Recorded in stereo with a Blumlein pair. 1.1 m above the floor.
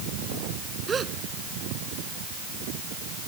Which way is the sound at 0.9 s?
15° right.